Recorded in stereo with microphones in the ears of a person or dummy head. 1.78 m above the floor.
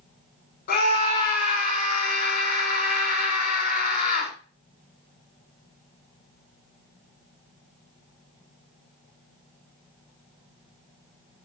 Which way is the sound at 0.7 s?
50° left (ahead or behind).